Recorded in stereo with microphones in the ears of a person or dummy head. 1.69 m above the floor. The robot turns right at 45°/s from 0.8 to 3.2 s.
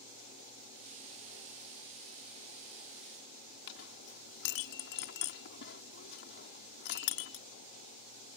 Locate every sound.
3.7 s a clink: 60° left (ahead or behind)